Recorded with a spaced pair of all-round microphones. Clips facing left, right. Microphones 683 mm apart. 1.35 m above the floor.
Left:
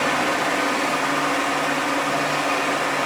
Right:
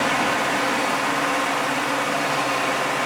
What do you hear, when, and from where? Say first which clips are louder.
0.0 s a fan: left 1 dB; 25° right (ahead or behind), 1.9 m